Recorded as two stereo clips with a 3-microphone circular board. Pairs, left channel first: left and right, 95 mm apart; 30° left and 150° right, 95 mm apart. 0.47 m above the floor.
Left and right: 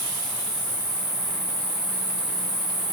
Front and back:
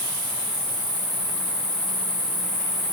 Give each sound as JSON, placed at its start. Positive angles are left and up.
{"t": 0.0, "sound": "an insect", "azimuth_deg": 60, "distance_m": 1.0}